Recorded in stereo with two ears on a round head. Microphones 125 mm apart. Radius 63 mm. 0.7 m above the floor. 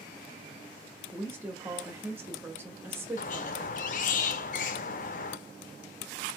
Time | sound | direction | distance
1.1 | a woman speaking | 15° right (ahead or behind) | 1.1 m
3.2 | a squeak | 60° left (ahead or behind) | 0.5 m